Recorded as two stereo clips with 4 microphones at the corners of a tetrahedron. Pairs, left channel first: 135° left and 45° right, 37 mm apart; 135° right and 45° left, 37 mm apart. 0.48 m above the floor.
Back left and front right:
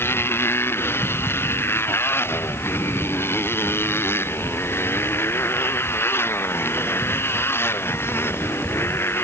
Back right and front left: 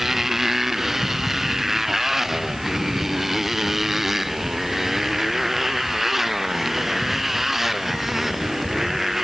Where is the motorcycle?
125° left; by 9.2 s 130° left.